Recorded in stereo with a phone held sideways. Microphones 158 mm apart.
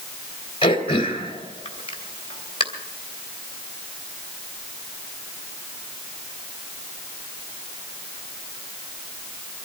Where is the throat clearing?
35° left (ahead or behind), 2.5 m.